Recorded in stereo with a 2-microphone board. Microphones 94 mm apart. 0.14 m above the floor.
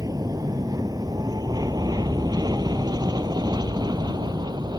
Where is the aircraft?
40° right (ahead or behind); by 4.8 s 45° right (ahead or behind).